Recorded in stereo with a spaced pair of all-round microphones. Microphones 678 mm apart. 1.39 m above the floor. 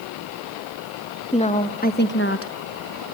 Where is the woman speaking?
10° left (ahead or behind), 1.8 m; by 3.0 s 30° left (ahead or behind), 0.9 m.